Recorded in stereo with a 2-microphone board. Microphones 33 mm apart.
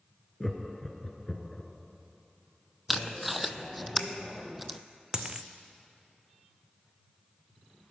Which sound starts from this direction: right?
A dropped coin, at 5.1 s.